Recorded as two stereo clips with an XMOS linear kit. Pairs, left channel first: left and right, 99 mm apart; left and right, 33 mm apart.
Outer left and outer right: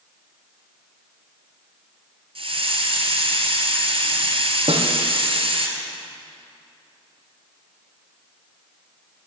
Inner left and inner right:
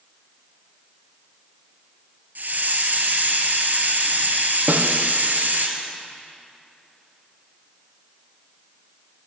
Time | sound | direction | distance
2.4 | a hiss | 65° right (ahead or behind) | 1.8 m
4.7 | a snare drum | 75° right (ahead or behind) | 1.3 m